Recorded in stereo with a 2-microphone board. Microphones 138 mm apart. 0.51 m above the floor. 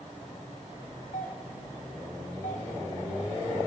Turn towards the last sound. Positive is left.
turn(degrees=65)  # may be behind; listen again after turning